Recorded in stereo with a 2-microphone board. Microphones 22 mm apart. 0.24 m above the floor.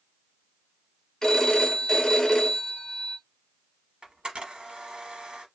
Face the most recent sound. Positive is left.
turn(degrees=-55)  # may be behind; listen again after turning